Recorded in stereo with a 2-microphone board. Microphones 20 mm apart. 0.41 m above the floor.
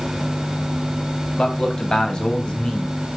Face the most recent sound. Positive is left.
turn(degrees=55)  # may be behind; listen again after turning